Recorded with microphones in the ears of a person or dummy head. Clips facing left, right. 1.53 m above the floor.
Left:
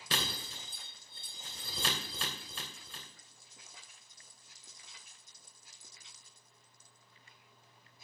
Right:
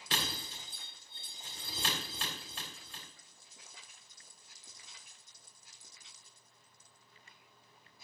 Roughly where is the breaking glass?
Left.